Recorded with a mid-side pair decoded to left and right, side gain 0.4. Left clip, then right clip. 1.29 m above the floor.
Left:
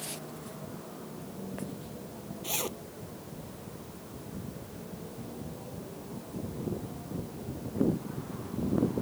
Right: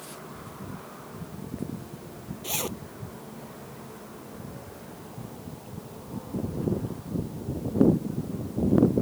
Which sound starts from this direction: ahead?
A zipper, at 2.4 s.